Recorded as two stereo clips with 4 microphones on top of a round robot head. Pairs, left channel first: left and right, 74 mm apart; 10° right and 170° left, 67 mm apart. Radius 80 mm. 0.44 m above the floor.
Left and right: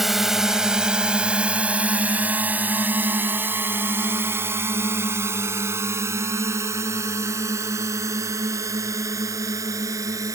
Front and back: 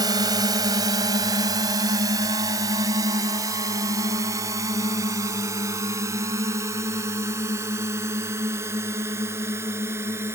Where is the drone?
175° right; by 10.3 s 135° right.